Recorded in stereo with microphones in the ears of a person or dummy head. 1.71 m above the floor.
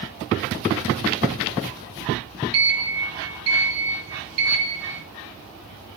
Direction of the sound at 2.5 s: 60° right (ahead or behind).